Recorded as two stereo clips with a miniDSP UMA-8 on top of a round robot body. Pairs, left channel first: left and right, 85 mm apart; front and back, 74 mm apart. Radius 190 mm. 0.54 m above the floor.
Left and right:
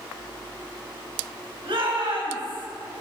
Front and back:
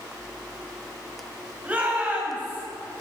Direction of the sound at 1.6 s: 110° right.